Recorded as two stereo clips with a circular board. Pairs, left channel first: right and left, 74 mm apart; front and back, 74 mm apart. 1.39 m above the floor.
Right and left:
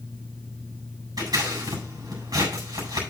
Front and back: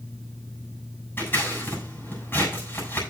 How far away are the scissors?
About 7.5 m.